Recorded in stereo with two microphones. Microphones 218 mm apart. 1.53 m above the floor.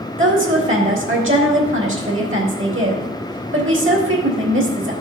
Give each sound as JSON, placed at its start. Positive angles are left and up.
{"t": 0.2, "sound": "a woman speaking", "side_deg": -65, "distance_m": 2.5}